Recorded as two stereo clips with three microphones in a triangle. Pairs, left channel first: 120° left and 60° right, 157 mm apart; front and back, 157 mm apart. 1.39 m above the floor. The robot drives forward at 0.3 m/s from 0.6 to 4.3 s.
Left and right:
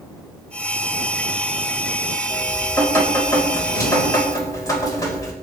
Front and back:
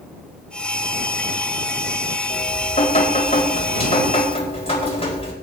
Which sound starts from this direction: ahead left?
Dripping, at 2.3 s.